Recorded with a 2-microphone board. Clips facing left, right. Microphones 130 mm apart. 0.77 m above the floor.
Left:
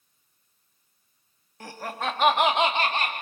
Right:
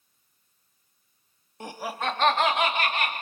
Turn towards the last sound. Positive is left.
turn(degrees=40)  # may be behind; listen again after turning